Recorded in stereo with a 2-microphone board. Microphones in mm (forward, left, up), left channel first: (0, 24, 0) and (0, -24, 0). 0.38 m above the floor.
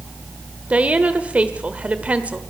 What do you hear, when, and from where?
0.7 s a woman speaking: 25° right (ahead or behind), 1.2 m